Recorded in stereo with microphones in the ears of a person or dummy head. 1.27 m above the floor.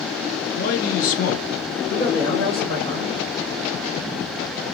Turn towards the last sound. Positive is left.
turn(degrees=35)  # may be behind; listen again after turning